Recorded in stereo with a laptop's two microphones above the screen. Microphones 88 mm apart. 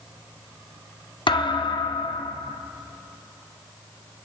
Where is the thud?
60° left (ahead or behind), 0.6 m.